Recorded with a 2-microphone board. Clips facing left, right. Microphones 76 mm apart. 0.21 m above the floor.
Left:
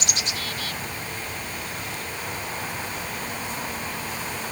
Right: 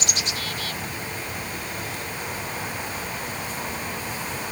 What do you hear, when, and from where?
Only background noise.